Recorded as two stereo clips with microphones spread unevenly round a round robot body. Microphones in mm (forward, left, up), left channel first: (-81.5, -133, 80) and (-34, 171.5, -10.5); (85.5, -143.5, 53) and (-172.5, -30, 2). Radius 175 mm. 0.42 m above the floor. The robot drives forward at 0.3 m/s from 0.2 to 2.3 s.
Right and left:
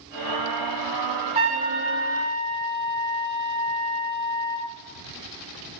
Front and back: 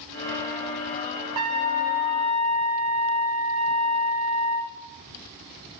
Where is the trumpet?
140° left, 0.9 m; by 4.7 s 150° left, 1.1 m.